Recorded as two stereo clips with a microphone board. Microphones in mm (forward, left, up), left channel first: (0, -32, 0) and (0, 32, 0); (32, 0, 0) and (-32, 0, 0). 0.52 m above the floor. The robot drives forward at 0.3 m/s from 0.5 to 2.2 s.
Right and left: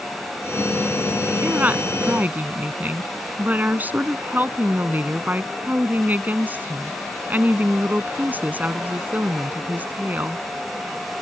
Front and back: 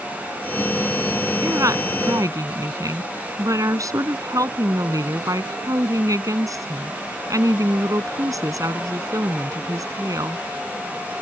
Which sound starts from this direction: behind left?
A woman speaking, at 1.4 s.